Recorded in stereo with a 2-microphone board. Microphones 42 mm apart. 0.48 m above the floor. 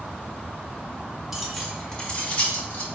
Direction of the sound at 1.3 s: 5° right (ahead or behind).